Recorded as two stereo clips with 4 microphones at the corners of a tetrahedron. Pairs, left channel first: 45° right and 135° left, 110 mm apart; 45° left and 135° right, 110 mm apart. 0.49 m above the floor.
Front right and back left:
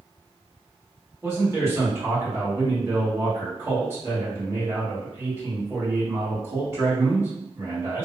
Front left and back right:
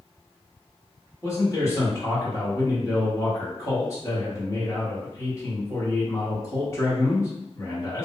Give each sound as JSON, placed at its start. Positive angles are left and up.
{"t": 1.2, "sound": "a man speaking", "azimuth_deg": 90, "distance_m": 1.3}